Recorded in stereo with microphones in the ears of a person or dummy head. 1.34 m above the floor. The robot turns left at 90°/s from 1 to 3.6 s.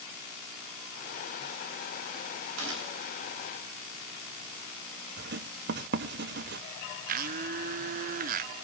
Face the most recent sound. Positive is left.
turn(degrees=-40)  # may be behind; listen again after turning